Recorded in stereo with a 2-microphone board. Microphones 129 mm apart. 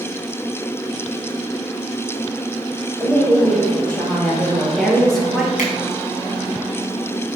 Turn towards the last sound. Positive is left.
turn(degrees=75)  # may be behind; listen again after turning